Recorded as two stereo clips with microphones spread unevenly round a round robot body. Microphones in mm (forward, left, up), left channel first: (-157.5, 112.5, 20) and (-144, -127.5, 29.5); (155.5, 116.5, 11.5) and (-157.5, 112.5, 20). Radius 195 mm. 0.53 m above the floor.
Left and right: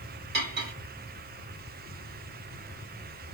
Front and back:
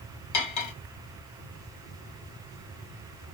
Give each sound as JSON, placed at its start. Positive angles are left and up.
{"t": 0.3, "sound": "cutlery clinking", "azimuth_deg": -30, "distance_m": 0.5}